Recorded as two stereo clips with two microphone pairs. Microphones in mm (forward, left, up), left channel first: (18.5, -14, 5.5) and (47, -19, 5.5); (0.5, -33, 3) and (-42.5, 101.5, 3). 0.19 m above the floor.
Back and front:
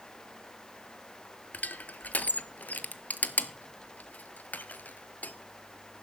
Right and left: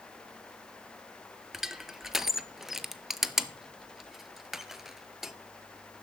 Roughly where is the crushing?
Behind.